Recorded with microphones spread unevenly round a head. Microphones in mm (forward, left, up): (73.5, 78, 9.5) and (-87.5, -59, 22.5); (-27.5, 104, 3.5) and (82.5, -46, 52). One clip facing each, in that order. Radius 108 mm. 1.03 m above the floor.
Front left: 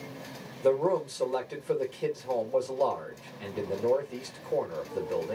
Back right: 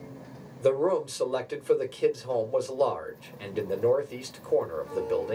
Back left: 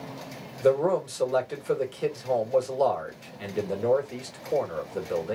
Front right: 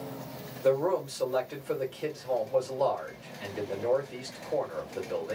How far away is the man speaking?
About 1.6 m.